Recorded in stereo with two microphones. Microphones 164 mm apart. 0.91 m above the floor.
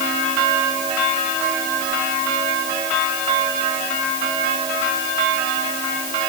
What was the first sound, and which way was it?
Only background noise.